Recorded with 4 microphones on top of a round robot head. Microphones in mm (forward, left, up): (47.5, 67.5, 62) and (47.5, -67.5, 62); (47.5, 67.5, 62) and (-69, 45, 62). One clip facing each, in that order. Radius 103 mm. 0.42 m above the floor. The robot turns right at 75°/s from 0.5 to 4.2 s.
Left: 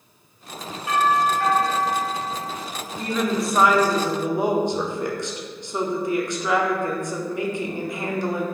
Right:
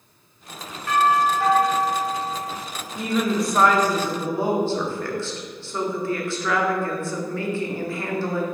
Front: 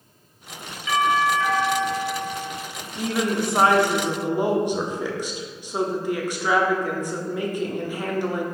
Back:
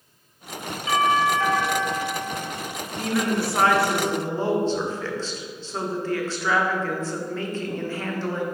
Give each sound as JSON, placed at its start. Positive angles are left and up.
{"t": 0.9, "sound": "a doorbell", "azimuth_deg": 155, "distance_m": 1.6}
{"t": 3.0, "sound": "a woman speaking", "azimuth_deg": -35, "distance_m": 1.0}